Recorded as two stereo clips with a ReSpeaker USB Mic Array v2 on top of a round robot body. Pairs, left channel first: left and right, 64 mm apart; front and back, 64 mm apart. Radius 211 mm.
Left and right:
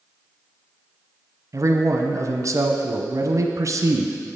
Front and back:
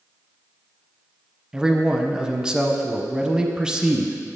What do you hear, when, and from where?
1.5 s a man speaking: 105° right, 1.0 m